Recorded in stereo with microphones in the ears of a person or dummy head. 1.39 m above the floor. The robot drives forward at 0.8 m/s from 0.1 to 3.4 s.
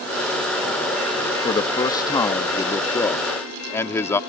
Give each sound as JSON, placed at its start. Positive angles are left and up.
{"t": 1.4, "sound": "a man speaking", "side_deg": 30}